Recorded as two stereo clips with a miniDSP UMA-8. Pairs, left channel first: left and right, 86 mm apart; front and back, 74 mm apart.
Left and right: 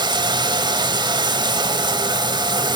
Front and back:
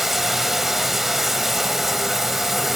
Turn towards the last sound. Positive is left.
turn(degrees=-95)